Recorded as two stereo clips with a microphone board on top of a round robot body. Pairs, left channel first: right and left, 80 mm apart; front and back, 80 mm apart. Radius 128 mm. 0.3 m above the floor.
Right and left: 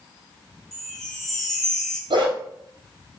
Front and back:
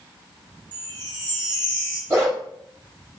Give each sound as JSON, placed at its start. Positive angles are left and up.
{"t": 0.7, "sound": "a chime", "azimuth_deg": -175, "distance_m": 3.5}
{"t": 2.1, "sound": "a dog barking", "azimuth_deg": 120, "distance_m": 3.5}